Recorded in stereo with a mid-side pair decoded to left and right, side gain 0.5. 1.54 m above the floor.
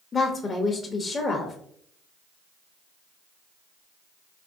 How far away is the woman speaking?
About 0.7 m.